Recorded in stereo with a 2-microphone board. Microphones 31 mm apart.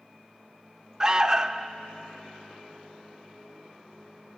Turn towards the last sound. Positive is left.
turn(degrees=-25)  # may be behind; listen again after turning